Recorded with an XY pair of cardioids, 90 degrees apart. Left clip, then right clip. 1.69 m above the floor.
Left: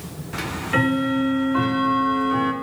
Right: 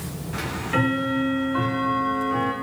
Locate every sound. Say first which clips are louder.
0.3 s ticking: left 2 dB; 35° left, 1.0 m